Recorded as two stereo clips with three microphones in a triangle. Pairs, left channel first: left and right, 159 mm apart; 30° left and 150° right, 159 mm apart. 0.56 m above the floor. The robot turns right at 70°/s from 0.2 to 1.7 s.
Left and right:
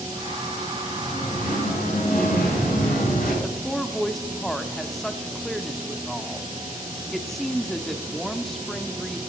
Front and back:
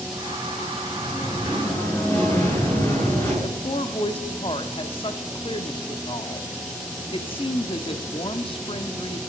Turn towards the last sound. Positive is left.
turn(degrees=5)